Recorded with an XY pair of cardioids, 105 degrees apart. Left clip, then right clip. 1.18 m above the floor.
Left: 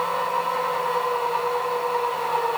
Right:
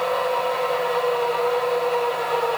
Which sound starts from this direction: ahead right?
A machine running, at 0.0 s.